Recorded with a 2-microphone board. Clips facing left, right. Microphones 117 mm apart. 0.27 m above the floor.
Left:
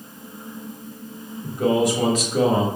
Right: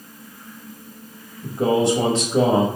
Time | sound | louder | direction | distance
1.4 | a man speaking | right 1 dB | 30° right (ahead or behind) | 1.1 m